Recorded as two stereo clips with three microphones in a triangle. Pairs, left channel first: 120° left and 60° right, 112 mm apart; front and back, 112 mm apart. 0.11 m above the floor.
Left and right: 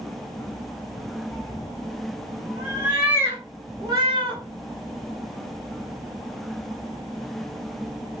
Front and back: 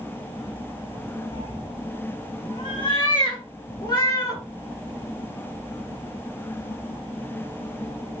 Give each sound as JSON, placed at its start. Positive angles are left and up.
{"t": 1.3, "sound": "a cat meowing", "azimuth_deg": 40, "distance_m": 1.7}